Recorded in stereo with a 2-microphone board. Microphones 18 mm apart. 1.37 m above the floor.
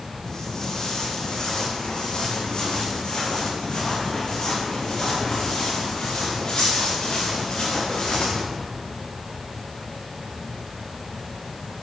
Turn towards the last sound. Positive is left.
turn(degrees=80)